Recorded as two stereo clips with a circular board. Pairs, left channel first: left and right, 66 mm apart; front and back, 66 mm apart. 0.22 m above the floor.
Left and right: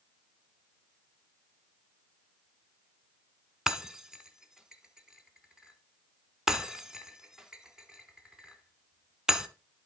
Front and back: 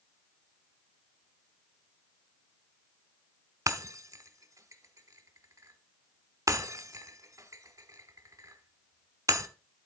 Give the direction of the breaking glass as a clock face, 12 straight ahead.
6 o'clock.